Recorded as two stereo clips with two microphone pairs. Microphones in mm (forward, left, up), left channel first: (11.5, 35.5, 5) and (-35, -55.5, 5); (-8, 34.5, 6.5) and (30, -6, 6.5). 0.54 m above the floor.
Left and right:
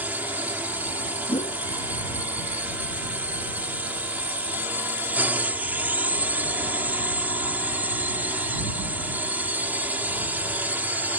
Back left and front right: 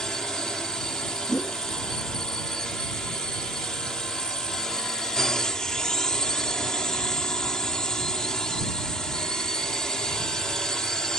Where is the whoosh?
65° left.